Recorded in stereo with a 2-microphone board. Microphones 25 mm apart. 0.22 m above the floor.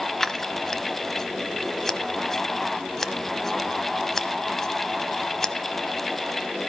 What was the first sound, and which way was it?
Scissors, 15° left (ahead or behind).